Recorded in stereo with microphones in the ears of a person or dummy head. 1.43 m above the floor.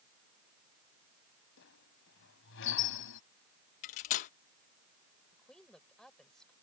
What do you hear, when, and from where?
1.6 s a squeak: 70° left (ahead or behind)
3.8 s cutlery clinking: 35° left (ahead or behind)
5.3 s a woman speaking: 5° left (ahead or behind)